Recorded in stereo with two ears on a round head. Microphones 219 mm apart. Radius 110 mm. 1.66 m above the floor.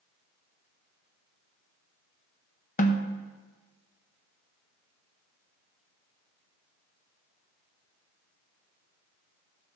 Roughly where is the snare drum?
Left.